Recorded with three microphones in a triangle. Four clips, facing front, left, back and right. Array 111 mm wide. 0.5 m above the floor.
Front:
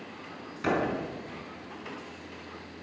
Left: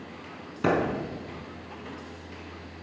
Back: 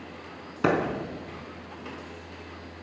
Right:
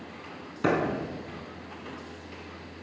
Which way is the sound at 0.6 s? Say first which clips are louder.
Left 1 dB, back 5 dB; 175° right.